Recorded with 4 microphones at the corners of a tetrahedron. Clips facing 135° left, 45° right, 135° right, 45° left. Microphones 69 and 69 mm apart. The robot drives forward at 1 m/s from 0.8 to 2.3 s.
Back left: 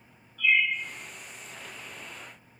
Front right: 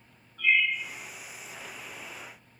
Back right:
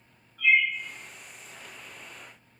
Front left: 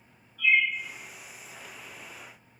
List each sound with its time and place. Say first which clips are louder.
0.4 s a bird: even, back right 1 dB; 90° right, 1.2 m